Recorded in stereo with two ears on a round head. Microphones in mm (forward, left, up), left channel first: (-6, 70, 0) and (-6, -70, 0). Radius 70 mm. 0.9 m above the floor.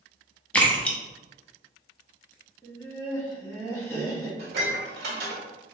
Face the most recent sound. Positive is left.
turn(degrees=-70)  # may be behind; listen again after turning